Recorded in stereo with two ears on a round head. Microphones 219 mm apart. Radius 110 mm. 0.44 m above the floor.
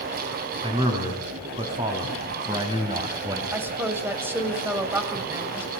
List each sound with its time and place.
0.6 s a man speaking: 20° right (ahead or behind), 5 m; by 3.4 s 15° right (ahead or behind), 3 m
3.5 s a woman speaking: 10° right (ahead or behind), 2.5 m